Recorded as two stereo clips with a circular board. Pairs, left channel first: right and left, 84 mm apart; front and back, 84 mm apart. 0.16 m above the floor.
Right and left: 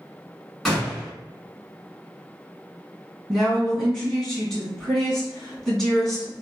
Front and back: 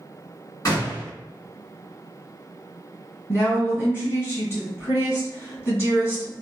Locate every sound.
0.7 s a gunshot: straight ahead, 1.7 m
3.3 s a woman speaking: 10° right, 1.8 m